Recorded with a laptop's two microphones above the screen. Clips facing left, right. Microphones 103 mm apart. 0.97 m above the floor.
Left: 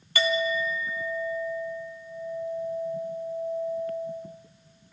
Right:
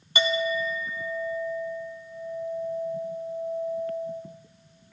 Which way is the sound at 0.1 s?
20° right (ahead or behind).